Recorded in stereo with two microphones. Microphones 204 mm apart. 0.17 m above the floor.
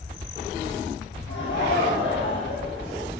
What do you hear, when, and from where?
1.3 s laughter: 70° left (ahead or behind), 7 m